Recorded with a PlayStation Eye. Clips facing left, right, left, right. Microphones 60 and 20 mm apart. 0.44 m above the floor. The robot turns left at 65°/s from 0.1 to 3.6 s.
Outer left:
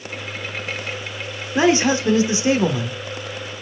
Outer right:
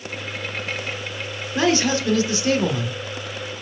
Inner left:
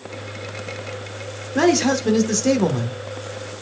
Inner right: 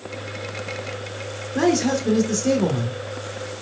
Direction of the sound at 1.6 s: 20° left (ahead or behind).